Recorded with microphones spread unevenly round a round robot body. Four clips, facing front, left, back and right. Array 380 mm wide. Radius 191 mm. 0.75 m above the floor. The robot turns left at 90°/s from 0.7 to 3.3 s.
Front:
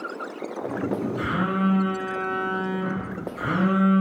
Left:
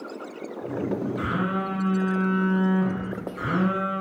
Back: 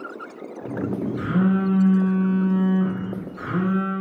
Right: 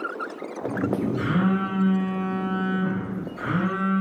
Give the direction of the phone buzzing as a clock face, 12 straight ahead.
4 o'clock.